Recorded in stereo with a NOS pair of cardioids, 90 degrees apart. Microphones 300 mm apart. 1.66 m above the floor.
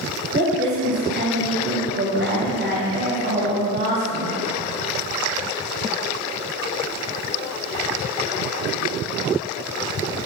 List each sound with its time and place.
0.3 s a woman speaking: 35° right, 1.5 m